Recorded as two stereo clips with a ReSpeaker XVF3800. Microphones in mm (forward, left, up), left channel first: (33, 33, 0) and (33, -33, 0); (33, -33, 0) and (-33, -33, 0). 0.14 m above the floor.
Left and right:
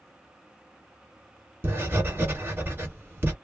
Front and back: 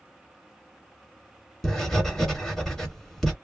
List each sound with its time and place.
1.6 s writing: 80° right, 1.4 m